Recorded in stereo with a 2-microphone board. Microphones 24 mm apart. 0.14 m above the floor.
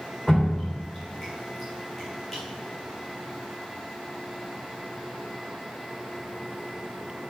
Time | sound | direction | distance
0.3 | dripping | 20° left (ahead or behind) | 4.5 m